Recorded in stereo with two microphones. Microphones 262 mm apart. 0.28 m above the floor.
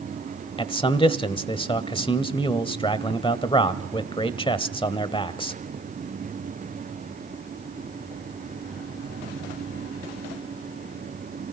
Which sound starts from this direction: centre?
A man speaking, at 0.6 s.